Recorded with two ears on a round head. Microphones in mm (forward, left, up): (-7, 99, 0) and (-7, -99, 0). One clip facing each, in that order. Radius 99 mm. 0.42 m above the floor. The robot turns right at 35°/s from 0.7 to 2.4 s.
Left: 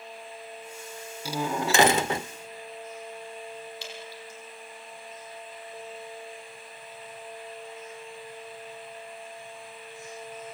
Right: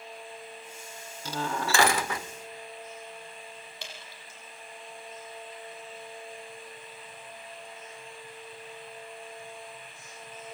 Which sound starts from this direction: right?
Dripping, at 3.8 s.